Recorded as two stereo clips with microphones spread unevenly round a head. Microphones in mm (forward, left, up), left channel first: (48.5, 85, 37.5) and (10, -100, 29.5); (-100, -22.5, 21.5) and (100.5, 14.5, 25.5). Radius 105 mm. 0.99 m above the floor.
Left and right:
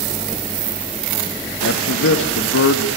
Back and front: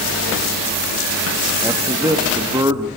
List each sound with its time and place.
1.6 s a man speaking: 85° left, 1.9 m